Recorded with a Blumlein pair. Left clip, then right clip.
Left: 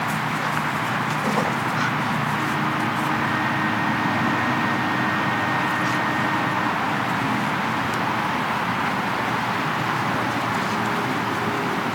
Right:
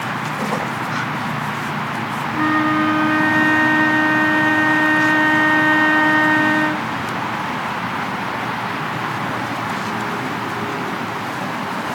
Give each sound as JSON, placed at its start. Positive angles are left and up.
{"t": 2.3, "sound": "a flute", "azimuth_deg": -55}